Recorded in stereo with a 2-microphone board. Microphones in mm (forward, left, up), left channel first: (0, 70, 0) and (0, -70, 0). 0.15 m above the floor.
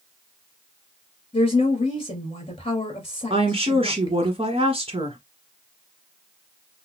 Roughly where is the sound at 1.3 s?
Left.